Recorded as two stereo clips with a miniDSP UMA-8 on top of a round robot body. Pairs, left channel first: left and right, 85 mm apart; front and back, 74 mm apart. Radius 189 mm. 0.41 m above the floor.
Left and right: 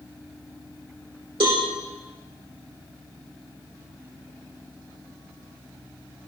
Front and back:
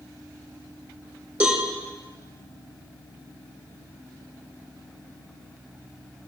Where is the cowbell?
110° right, 3 m.